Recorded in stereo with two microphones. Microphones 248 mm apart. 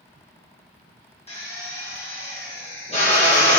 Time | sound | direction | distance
1.3 | a drill | 25° left (ahead or behind) | 2 m